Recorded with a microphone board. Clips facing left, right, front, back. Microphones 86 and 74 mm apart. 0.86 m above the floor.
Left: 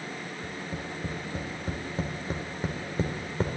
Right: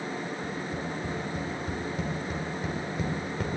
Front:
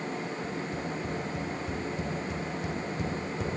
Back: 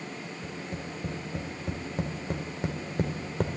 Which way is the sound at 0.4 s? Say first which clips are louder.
Right 3 dB, front 4 dB; 145° left.